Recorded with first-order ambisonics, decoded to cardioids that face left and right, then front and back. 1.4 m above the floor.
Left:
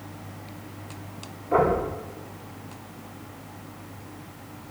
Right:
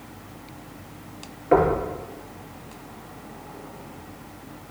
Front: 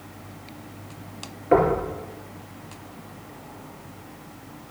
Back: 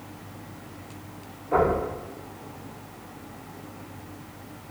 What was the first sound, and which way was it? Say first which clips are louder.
Knocking: right 2 dB, front 3 dB; 45° right.